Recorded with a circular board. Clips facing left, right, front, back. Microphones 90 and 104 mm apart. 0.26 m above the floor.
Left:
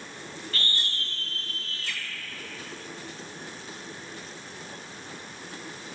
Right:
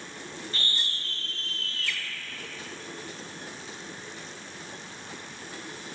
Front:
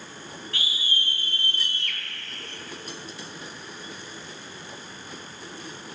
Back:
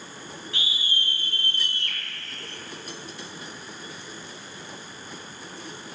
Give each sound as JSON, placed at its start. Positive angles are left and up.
{"t": 0.5, "sound": "a scream", "azimuth_deg": -130, "distance_m": 1.5}